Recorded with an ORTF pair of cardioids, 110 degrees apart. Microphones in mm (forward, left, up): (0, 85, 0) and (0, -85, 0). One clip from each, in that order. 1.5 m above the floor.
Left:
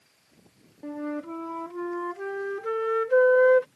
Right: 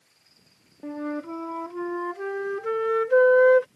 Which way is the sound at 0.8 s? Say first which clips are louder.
Right 2 dB; 10° right.